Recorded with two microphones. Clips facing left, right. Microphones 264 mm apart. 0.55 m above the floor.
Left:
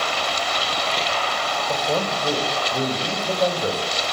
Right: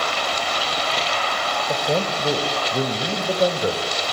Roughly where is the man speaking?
Right.